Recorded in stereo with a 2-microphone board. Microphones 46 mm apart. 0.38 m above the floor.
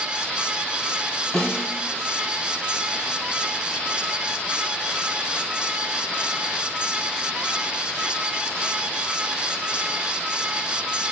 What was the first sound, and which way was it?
A snare drum, centre (ahead or behind).